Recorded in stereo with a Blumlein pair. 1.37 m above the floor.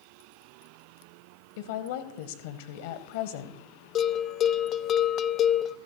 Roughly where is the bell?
Ahead left.